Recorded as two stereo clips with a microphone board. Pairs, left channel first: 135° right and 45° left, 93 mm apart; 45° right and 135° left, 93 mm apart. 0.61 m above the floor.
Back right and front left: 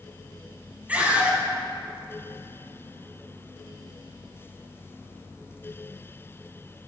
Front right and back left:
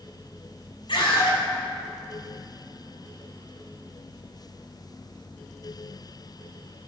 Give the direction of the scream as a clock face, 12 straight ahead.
1 o'clock.